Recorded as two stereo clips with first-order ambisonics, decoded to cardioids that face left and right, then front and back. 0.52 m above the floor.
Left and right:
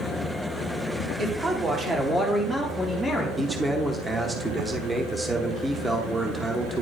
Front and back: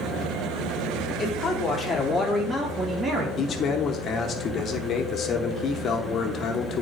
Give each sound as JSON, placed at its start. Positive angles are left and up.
{"t": 1.2, "sound": "a man speaking", "azimuth_deg": -40, "distance_m": 1.2}
{"t": 3.4, "sound": "a man speaking", "azimuth_deg": -15, "distance_m": 0.8}